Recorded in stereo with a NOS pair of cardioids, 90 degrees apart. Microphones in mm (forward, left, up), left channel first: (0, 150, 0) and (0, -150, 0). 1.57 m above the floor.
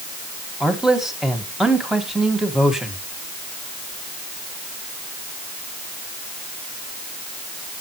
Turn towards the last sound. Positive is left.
turn(degrees=0)